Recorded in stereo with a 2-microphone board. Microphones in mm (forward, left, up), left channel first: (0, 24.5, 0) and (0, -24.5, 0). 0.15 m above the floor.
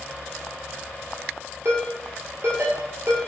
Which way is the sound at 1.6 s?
60° right (ahead or behind).